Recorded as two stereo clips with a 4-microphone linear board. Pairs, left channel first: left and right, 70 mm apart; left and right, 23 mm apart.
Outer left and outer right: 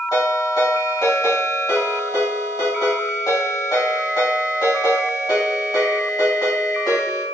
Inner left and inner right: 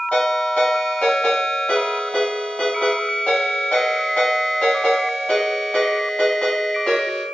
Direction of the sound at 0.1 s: 80° left.